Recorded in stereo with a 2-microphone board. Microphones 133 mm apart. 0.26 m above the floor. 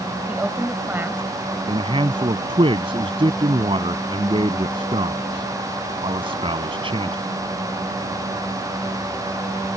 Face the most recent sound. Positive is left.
turn(degrees=-45)  # may be behind; listen again after turning